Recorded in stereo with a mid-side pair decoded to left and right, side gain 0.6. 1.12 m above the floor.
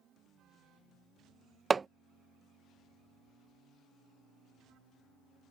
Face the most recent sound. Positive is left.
turn(degrees=-25)